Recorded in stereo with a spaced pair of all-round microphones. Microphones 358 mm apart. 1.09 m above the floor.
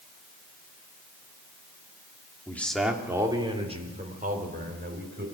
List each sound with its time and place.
2.5 s a man speaking: 5° left (ahead or behind), 2.5 m; by 5.3 s 30° right (ahead or behind), 5.5 m